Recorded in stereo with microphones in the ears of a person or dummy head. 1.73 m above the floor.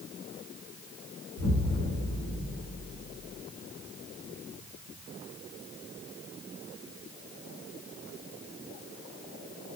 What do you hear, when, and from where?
1.4 s an explosion: 60° left (ahead or behind), 1.4 m